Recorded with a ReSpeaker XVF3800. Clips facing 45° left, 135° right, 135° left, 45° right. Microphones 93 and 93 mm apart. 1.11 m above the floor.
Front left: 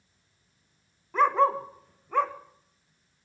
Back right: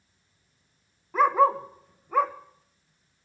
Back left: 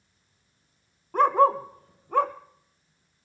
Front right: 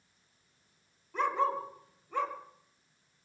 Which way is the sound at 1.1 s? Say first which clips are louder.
Back right 2 dB, back left 10 dB; 145° left.